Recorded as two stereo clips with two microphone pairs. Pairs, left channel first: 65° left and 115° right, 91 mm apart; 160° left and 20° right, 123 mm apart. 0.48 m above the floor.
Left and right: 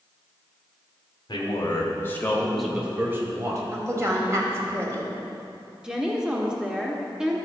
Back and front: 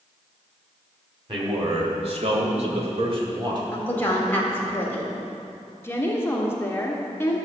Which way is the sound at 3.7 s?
140° right.